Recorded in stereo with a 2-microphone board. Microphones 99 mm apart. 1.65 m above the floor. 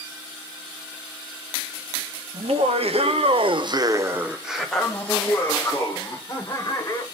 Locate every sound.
2.3 s laughter: 80° right, 1.2 m; by 7.0 s 35° left (ahead or behind), 2 m